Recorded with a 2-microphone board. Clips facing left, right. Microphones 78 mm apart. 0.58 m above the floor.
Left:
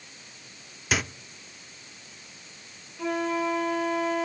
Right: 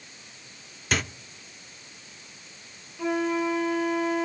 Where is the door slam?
I don't hear a door slam.